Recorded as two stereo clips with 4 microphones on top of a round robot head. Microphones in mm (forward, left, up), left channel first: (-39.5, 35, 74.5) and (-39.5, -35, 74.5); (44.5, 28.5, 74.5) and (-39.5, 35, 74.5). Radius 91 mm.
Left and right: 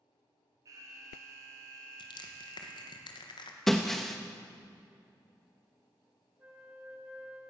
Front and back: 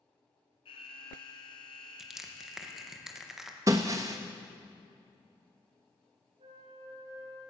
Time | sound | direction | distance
0.7 | an alarm | 35° right | 3 m
2.0 | crushing | 90° left | 2.5 m
3.7 | breaking glass | 175° left | 0.9 m
6.4 | a flute | 155° right | 9 m